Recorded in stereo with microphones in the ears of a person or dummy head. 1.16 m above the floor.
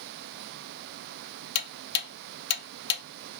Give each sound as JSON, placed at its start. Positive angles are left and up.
{"t": 1.6, "sound": "ticking", "side_deg": 60, "distance_m": 0.6}